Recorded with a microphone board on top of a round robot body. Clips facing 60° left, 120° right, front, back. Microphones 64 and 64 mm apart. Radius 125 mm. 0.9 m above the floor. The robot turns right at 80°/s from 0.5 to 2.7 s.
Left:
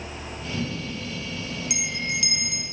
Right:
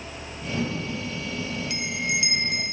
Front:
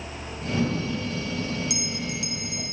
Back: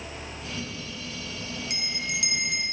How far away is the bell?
About 0.9 m.